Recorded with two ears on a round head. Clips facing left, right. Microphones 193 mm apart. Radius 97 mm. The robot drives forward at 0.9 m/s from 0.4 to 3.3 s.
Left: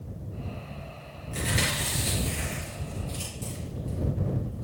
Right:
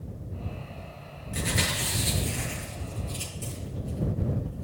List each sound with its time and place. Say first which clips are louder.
1.3 s chewing: even; 5° right (ahead or behind), 5.5 m